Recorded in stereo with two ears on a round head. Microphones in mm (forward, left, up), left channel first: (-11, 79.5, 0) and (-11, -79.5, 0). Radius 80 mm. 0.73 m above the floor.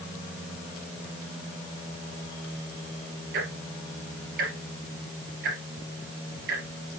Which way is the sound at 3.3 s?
60° right (ahead or behind).